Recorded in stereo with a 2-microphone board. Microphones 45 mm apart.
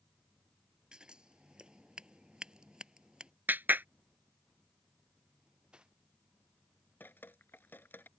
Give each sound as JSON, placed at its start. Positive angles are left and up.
{"t": 0.9, "sound": "scissors", "side_deg": -20}
{"t": 3.5, "sound": "a clap", "side_deg": -50}
{"t": 5.4, "sound": "cutlery clinking", "side_deg": -20}
{"t": 7.0, "sound": "dripping", "side_deg": 50}